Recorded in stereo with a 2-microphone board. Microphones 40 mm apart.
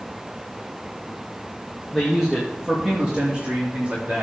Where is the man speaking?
Centre (ahead or behind), 2 m; by 4.2 s 40° right (ahead or behind), 3.5 m.